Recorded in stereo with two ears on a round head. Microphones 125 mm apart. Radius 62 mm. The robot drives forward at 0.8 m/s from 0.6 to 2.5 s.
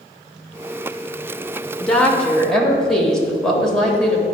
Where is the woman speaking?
5° left (ahead or behind), 0.8 m.